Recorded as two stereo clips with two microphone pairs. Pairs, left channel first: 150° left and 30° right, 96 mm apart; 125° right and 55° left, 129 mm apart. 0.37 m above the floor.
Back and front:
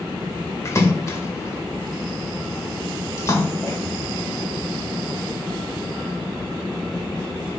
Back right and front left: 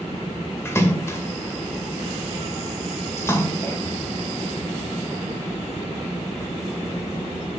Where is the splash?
Straight behind, 1.7 m.